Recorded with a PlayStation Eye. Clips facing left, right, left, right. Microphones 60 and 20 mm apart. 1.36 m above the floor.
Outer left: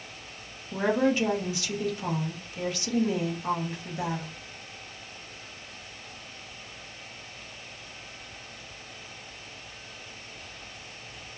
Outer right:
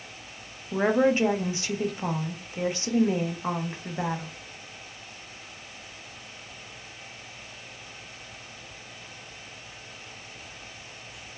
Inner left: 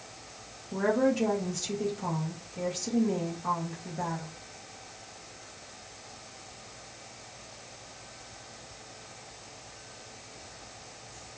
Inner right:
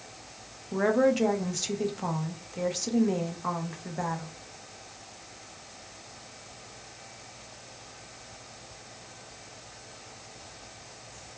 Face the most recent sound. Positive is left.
turn(degrees=-25)  # may be behind; listen again after turning